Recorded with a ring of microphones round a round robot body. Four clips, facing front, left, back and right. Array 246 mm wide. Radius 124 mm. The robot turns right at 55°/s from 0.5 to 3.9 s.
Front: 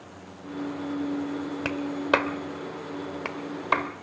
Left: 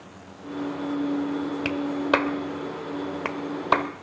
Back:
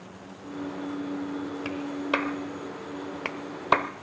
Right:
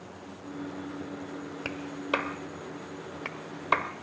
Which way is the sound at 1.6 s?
20° left.